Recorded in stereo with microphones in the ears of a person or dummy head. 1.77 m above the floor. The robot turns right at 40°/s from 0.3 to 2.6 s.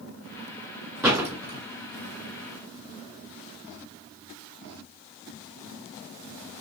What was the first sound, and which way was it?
A door slam, 15° right (ahead or behind).